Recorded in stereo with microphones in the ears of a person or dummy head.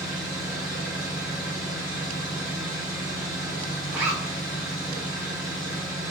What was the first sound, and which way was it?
An engine running, centre (ahead or behind).